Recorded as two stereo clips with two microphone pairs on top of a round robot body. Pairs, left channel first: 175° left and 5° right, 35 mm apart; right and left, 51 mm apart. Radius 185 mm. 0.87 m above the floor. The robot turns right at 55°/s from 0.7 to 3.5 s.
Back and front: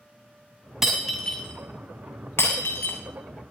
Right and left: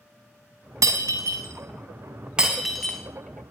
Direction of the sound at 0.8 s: 75° left.